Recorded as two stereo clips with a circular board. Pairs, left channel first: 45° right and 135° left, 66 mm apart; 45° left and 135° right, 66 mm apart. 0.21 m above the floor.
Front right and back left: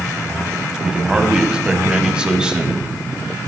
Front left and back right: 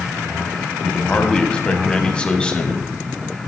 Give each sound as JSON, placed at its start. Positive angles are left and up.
{"t": 0.8, "sound": "a man speaking", "azimuth_deg": 85, "distance_m": 1.1}